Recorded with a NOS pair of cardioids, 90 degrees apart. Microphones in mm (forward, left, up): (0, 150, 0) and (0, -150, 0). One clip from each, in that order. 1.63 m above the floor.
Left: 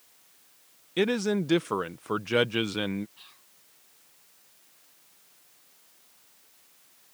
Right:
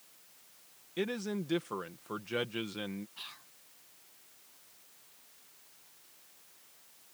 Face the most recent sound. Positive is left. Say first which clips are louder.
# right 6 dB
turn(degrees=-45)